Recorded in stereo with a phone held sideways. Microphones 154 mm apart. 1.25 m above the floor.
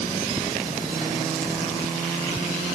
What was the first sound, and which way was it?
Only background noise.